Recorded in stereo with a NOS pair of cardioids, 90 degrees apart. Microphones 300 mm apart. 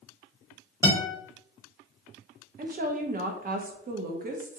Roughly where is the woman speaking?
Ahead right.